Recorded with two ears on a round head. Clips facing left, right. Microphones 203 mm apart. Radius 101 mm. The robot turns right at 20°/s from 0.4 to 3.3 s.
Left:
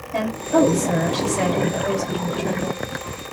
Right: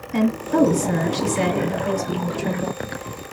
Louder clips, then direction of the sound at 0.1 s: Right 1 dB; 150° right.